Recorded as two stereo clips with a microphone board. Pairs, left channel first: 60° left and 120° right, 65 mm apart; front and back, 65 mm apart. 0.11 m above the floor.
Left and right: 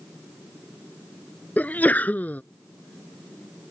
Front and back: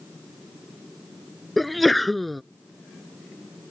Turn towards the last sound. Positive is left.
turn(degrees=85)